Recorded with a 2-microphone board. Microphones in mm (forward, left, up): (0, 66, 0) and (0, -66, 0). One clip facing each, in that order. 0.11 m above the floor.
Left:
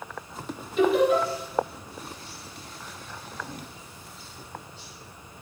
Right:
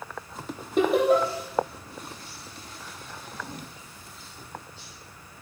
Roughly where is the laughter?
Right.